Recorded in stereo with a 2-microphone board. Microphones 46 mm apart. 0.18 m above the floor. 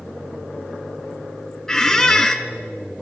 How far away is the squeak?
About 0.6 m.